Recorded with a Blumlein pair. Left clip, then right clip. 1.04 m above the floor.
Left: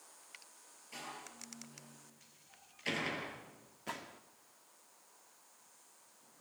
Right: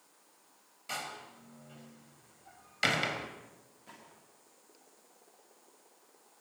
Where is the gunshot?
30° left, 1.5 m.